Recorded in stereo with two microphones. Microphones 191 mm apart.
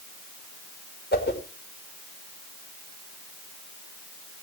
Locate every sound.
1.1 s a whoosh: 60° left (ahead or behind), 2.5 m